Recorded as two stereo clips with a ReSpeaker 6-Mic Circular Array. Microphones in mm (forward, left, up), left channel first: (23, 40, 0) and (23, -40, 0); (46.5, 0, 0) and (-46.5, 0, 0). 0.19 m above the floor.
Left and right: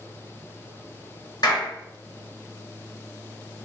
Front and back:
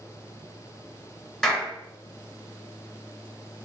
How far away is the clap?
About 2.5 m.